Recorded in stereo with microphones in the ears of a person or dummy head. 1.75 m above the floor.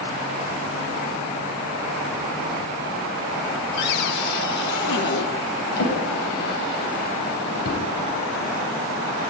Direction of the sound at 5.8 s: 55° left (ahead or behind).